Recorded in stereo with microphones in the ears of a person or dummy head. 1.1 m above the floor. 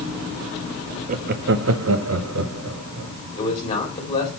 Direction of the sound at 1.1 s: 40° right (ahead or behind).